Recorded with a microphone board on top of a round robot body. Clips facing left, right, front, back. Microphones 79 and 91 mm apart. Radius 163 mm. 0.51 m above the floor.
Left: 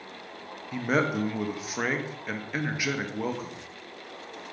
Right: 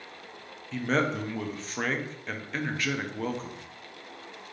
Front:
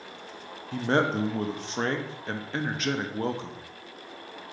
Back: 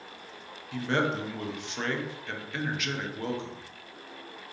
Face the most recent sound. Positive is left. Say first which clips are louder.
# left 1 dB, front 3 dB
turn(degrees=20)